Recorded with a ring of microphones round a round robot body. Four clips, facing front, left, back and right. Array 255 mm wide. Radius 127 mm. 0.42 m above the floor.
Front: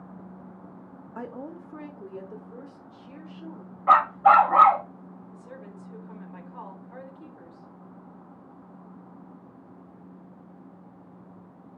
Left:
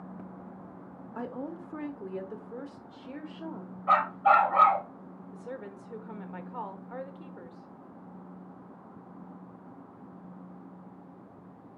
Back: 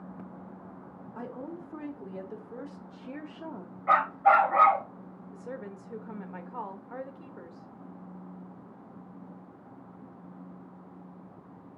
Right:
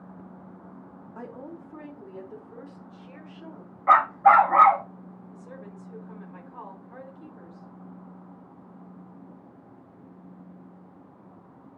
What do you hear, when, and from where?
1.1 s a woman speaking: 40° left, 1.2 m; by 3.7 s 150° left, 1.5 m
3.9 s a dog barking: 40° right, 0.8 m
5.3 s a woman speaking: 135° left, 1.2 m